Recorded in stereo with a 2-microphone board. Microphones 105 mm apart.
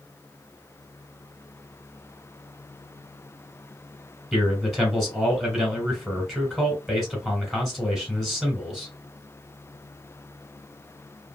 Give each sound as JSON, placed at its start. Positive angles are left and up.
{"t": 4.3, "sound": "a man speaking", "side_deg": 0, "distance_m": 1.7}